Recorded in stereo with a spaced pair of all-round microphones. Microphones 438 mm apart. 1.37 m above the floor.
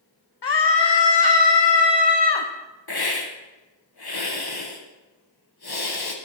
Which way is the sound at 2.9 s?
55° left (ahead or behind).